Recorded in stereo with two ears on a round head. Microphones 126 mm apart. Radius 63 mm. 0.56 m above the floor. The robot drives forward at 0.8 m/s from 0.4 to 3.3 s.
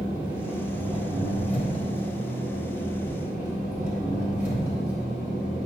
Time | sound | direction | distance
0.0 | an engine running | 40° right (ahead or behind) | 2.5 m